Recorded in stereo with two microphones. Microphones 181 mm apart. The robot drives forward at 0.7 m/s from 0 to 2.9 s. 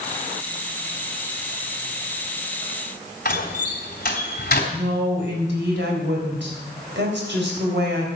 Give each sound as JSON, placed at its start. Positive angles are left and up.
{"t": 3.2, "sound": "a door slam", "side_deg": 55, "distance_m": 3.0}
{"t": 4.7, "sound": "a woman speaking", "side_deg": -80, "distance_m": 3.5}